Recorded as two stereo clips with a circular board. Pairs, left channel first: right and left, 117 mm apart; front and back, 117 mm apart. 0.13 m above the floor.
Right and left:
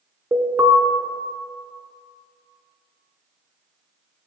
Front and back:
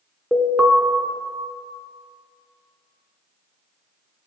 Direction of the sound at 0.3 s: 105° left.